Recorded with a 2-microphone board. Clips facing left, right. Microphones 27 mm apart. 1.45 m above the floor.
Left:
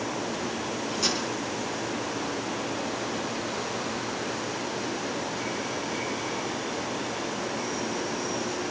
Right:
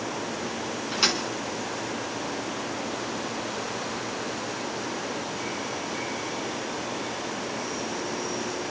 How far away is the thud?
About 6 m.